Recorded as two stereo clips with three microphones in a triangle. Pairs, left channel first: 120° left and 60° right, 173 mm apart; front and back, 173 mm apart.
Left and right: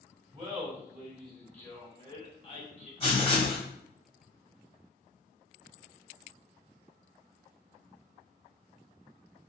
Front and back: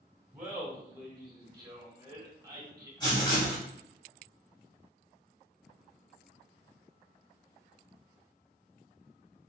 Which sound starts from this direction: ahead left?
Writing, at 3.0 s.